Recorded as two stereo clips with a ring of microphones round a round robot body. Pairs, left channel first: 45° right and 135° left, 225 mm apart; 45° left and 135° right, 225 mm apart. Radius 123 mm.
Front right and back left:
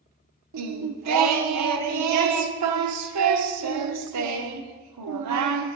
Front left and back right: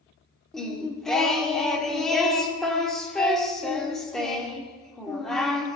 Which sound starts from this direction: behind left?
Singing, at 0.5 s.